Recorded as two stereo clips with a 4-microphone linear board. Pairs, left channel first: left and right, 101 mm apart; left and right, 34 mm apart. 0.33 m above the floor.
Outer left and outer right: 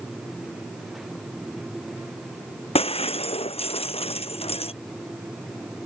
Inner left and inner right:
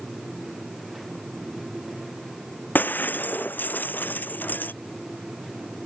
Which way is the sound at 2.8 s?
80° left.